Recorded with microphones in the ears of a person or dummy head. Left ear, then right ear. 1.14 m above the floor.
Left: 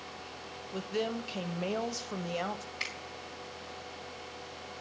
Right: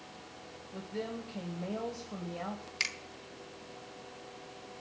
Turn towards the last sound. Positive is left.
turn(degrees=-40)  # may be behind; listen again after turning